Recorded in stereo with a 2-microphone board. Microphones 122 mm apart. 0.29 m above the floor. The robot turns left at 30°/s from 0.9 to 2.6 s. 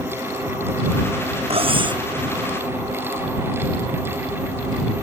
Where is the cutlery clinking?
55° right (ahead or behind); by 2.0 s 35° right (ahead or behind).